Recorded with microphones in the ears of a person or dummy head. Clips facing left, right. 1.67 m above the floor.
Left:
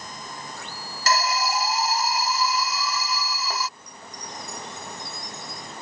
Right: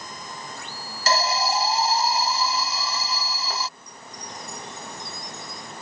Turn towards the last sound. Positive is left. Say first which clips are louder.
# even
turn(degrees=60)  # may be behind; listen again after turning